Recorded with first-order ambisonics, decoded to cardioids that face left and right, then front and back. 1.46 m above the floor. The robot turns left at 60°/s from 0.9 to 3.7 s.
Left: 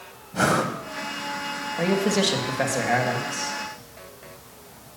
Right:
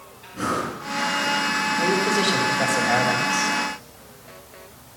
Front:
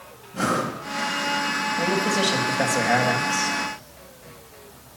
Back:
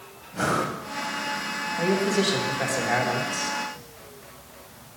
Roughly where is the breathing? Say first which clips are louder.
Left 4 dB, front 1 dB; left.